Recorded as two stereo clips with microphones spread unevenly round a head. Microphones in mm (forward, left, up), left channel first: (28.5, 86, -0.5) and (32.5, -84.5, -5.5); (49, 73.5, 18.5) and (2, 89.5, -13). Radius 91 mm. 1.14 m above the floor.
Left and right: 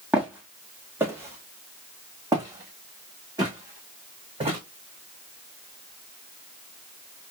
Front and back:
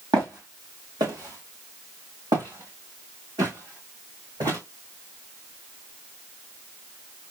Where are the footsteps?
175° right, 1.8 m; by 4.6 s 155° right, 4 m.